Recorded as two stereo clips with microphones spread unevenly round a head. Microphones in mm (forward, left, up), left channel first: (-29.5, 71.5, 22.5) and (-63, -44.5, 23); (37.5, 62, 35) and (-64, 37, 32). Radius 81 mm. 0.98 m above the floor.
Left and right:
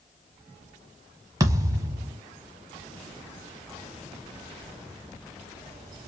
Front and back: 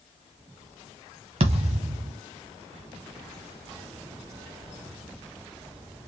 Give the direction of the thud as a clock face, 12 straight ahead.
5 o'clock.